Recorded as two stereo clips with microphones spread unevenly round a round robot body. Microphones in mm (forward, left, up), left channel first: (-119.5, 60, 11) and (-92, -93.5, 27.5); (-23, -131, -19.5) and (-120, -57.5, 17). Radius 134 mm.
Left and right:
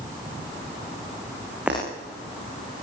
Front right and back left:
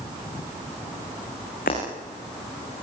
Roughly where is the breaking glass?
Ahead.